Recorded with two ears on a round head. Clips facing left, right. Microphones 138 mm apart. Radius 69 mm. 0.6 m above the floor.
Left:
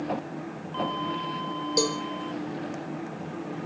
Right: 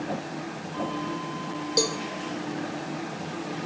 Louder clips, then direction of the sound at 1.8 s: Left 1 dB; centre (ahead or behind).